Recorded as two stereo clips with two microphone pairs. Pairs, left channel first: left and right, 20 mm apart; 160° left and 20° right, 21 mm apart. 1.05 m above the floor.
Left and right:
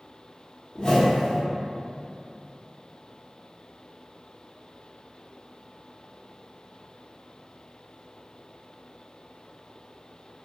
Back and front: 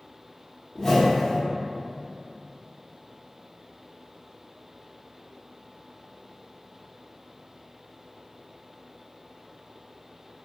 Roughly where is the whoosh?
Left.